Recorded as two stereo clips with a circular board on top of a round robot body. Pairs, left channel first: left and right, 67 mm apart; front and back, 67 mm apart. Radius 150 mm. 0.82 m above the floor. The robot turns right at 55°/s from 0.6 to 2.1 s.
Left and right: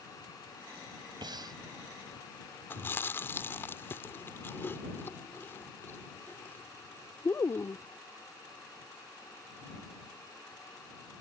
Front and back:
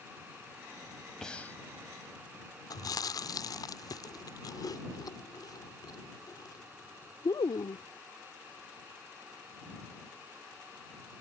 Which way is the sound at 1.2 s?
85° right.